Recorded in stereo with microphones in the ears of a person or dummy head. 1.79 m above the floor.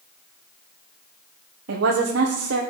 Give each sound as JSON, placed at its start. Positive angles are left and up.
{"t": 1.7, "sound": "a woman speaking", "side_deg": -75, "distance_m": 1.1}